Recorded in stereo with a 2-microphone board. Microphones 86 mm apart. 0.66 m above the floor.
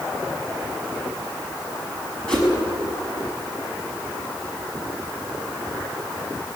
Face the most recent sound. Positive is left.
turn(degrees=10)  # may be behind; listen again after turning